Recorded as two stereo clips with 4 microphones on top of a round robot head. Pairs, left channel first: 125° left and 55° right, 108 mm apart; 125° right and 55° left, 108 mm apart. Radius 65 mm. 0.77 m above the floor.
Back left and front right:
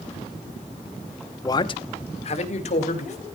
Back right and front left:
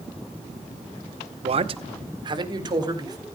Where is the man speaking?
70° left, 0.7 m; by 3.2 s 105° left, 3 m.